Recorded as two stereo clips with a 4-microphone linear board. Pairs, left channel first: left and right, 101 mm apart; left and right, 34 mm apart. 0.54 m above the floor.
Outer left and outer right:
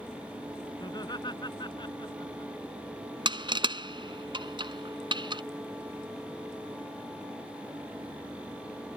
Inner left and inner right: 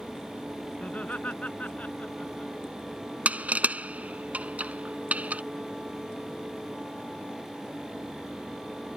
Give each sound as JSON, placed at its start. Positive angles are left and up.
{"t": 0.8, "sound": "laughter", "side_deg": 45}
{"t": 3.2, "sound": "crushing", "side_deg": -50}